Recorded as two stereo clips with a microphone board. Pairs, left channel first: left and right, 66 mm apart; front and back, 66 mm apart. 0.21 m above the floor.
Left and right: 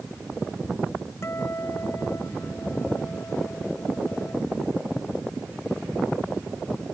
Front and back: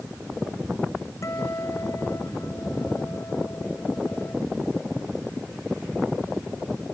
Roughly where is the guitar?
Ahead left.